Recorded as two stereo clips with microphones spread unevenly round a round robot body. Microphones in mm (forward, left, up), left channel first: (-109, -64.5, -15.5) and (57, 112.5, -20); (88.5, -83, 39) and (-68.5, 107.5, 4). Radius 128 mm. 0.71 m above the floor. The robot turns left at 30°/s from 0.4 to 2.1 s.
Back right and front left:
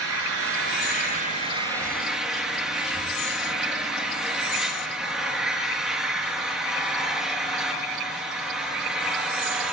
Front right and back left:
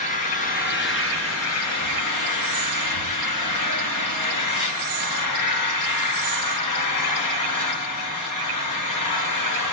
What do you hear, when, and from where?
0.0 s an engine running: 10° left, 5 m; by 9.7 s 40° right, 5 m